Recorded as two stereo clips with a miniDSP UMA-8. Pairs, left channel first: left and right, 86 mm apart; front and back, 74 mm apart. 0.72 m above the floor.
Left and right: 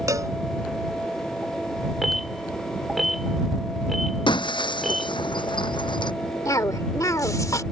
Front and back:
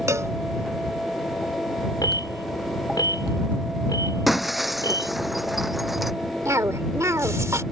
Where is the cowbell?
135° right.